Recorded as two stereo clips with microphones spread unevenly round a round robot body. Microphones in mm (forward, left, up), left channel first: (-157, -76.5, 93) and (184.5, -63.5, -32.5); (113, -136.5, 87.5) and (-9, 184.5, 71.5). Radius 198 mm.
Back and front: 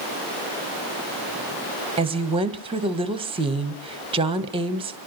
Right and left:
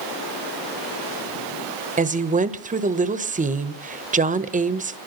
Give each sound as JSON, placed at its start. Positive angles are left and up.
{"t": 2.0, "sound": "a woman speaking", "azimuth_deg": 50, "distance_m": 1.5}